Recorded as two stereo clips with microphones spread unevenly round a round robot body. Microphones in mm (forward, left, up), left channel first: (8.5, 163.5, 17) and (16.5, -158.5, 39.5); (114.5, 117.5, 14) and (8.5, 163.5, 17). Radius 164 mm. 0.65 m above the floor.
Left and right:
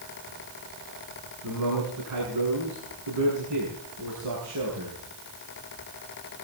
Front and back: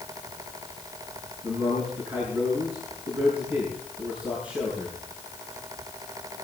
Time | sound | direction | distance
1.4 | a man speaking | 130° right | 7 m